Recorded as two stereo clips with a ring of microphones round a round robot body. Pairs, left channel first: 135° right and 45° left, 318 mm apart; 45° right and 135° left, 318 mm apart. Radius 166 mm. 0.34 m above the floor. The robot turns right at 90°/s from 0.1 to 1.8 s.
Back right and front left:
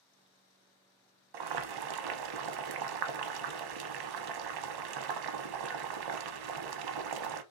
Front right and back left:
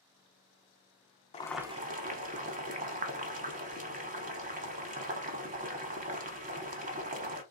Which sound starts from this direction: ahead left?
Boiling, at 1.3 s.